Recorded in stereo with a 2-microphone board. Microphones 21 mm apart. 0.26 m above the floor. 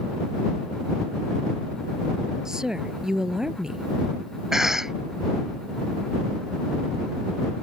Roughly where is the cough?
Right.